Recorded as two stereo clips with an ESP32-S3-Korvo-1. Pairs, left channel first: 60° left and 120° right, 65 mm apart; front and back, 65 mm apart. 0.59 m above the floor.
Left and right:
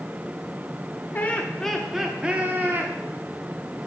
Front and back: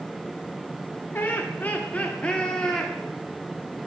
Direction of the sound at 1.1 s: 25° left.